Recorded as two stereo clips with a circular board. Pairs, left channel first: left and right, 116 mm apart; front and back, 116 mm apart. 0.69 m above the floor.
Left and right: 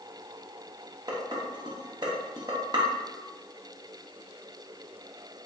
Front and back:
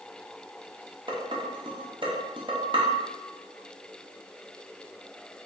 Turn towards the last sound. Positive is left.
turn(degrees=-140)